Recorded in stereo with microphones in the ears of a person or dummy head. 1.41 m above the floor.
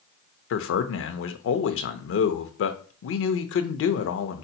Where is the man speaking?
60° left (ahead or behind), 0.7 m.